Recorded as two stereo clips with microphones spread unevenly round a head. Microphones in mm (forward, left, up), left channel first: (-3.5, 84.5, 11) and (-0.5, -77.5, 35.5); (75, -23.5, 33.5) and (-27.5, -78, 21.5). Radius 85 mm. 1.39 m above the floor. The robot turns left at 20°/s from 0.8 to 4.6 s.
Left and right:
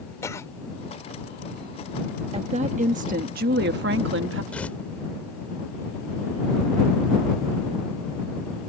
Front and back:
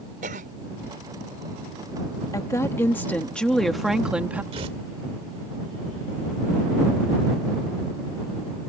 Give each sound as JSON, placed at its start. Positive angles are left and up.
{"t": 0.2, "sound": "a cough", "azimuth_deg": 165}
{"t": 2.3, "sound": "a woman speaking", "azimuth_deg": -35}
{"t": 4.5, "sound": "tearing paper", "azimuth_deg": 180}